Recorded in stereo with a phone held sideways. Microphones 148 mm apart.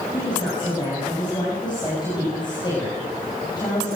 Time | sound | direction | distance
0.1 | a woman speaking | 30° left (ahead or behind) | 8 m